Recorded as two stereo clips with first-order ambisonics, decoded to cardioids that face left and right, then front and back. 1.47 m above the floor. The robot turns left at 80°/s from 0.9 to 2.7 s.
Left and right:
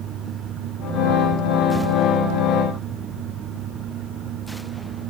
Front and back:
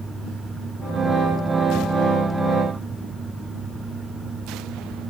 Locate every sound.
Only background noise.